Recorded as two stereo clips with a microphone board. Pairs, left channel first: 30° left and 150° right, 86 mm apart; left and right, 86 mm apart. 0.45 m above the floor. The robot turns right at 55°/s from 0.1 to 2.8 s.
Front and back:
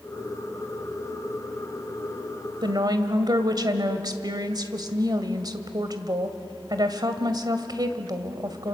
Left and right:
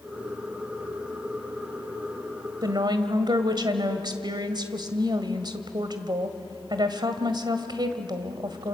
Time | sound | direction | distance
2.6 | a woman speaking | 125° right | 2.0 m